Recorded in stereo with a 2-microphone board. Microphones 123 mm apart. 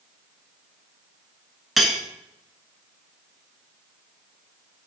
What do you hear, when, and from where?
1.8 s cutlery clinking: centre (ahead or behind), 1.2 m